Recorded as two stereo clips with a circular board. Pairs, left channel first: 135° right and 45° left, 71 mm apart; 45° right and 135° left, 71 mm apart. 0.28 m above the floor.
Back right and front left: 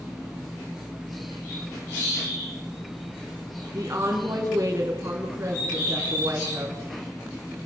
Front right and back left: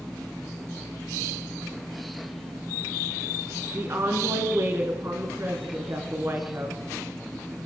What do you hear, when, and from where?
3.7 s a woman speaking: 90° left, 3 m